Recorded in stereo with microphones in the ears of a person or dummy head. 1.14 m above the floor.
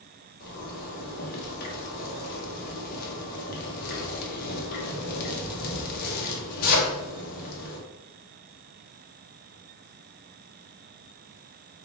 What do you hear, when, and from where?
0.4 s a zipper: 50° left (ahead or behind), 1.1 m